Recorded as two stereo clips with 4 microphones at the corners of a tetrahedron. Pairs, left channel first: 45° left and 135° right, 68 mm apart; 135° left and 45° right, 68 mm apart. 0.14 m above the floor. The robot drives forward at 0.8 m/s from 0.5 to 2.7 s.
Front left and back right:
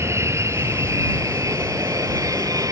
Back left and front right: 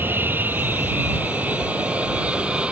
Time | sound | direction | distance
0.0 | an aircraft | 100° right | ?